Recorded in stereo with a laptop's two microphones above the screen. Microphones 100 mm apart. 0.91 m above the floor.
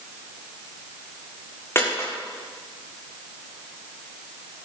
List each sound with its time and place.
1.8 s a dropped coin: 30° left (ahead or behind), 6 m